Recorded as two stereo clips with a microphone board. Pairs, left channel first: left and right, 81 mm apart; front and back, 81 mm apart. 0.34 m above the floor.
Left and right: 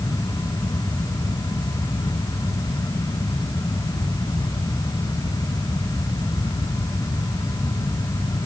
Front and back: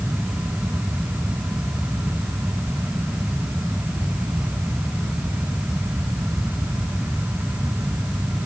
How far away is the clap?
No clap in this recording.